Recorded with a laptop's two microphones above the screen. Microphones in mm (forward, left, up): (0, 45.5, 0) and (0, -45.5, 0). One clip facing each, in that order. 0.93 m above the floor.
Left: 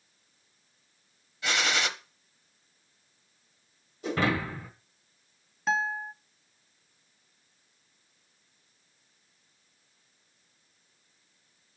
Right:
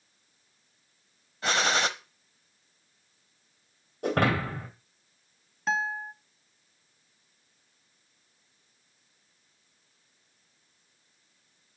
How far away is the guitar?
About 0.5 m.